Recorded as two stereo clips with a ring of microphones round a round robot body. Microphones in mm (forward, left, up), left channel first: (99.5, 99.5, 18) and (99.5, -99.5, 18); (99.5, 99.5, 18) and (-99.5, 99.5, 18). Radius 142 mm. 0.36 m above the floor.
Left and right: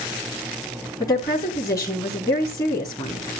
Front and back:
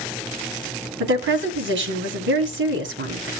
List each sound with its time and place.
1.0 s a woman speaking: 165° left, 2.5 m